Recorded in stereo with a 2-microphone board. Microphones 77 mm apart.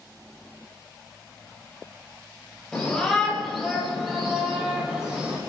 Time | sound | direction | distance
2.7 | a shout | 10° left (ahead or behind) | 6.5 m